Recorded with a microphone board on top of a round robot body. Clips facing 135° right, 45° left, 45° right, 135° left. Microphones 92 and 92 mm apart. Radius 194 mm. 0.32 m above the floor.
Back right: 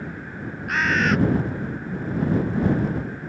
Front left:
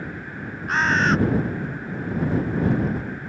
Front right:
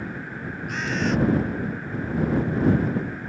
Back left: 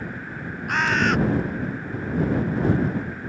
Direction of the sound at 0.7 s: 105° left.